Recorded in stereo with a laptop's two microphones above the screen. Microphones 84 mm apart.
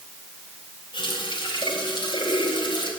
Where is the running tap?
85° left, 4 m.